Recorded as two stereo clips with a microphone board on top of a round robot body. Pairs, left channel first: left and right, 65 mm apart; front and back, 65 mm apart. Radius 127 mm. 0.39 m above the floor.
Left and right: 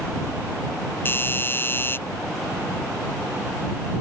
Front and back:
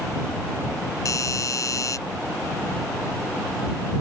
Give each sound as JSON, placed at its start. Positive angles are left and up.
{"t": 1.1, "sound": "a doorbell", "azimuth_deg": 35}